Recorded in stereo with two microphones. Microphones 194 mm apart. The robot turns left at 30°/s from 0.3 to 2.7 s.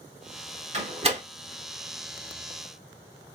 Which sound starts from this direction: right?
A door slam, at 0.7 s.